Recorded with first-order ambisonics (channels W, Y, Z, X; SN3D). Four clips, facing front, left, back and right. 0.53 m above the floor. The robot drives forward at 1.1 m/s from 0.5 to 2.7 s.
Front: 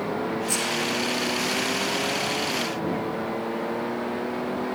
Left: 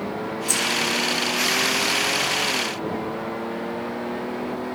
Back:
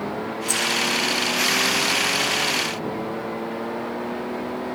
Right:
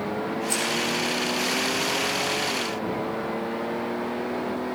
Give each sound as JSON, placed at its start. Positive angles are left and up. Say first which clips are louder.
{"t": 0.5, "sound": "keys jangling", "louder": "left 5 dB, back 7 dB", "azimuth_deg": 120, "distance_m": 6.0}